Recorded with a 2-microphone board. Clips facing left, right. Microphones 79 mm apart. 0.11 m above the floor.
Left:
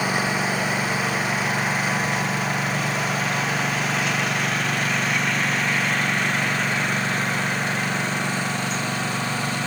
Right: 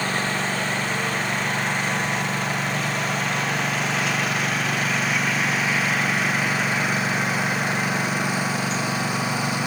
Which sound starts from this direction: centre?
A lawn mower, at 0.0 s.